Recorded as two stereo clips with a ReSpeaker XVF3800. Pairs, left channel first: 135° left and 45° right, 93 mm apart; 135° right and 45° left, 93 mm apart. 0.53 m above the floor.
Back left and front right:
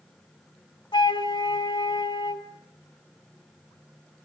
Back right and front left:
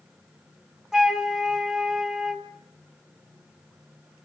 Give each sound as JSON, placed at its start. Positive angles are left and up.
{"t": 0.9, "sound": "a flute", "azimuth_deg": 130, "distance_m": 1.8}